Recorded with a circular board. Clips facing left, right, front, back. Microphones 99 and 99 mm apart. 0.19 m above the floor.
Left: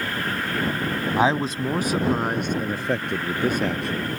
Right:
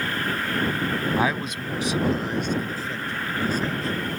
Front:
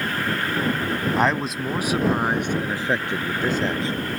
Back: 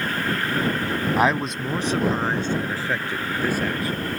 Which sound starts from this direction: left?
A man speaking, at 1.2 s.